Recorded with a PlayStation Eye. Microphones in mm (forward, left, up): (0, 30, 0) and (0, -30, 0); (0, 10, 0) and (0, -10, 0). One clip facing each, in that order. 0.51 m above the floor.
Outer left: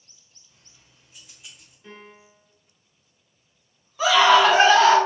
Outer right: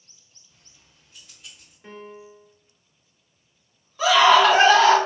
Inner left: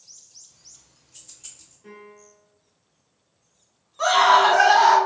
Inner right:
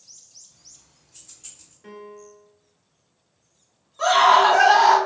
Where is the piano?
40° right (ahead or behind), 0.8 m.